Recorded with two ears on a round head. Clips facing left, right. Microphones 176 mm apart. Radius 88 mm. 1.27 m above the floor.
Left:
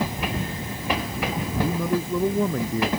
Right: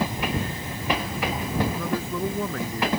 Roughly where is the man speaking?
Centre.